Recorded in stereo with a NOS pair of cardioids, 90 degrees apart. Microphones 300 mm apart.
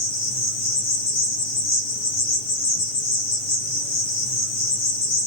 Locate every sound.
0.0 s an insect: 60° left, 1.4 m